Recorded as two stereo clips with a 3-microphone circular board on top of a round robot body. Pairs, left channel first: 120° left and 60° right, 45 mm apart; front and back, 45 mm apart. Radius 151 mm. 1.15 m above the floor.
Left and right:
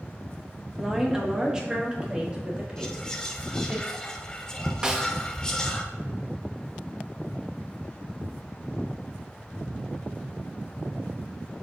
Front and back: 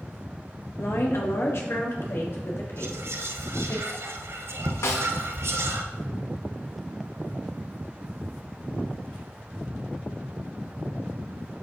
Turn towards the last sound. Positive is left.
turn(degrees=15)